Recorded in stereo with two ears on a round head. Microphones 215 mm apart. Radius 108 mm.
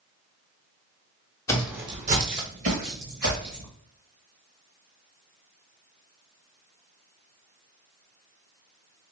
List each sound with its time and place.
1.5 s footsteps: 15° left (ahead or behind), 0.7 m; by 3.7 s 65° right (ahead or behind), 2.5 m